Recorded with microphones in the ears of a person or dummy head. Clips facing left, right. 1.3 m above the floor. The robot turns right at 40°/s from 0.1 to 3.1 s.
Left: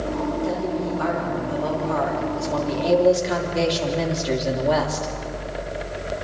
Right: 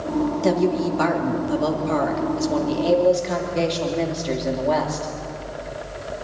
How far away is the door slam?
I don't hear a door slam.